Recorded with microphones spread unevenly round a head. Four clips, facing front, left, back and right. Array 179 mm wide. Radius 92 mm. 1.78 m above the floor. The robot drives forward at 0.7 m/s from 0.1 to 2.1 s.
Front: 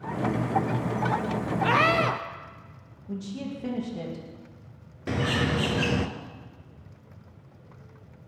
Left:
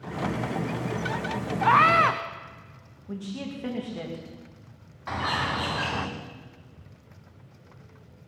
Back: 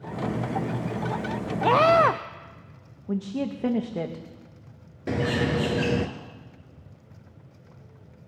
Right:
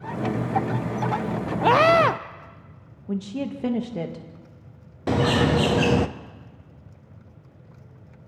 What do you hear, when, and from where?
1.6 s a scream: 115° right, 0.6 m; by 2.2 s 140° right, 0.8 m
3.1 s a woman speaking: 145° right, 2 m
5.1 s a bird: 100° right, 0.8 m